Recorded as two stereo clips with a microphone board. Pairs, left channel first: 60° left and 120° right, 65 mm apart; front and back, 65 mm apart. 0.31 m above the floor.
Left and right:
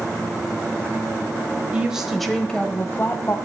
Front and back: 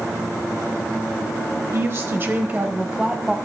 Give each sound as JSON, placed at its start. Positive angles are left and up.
{"t": 1.7, "sound": "a woman speaking", "azimuth_deg": 175, "distance_m": 1.1}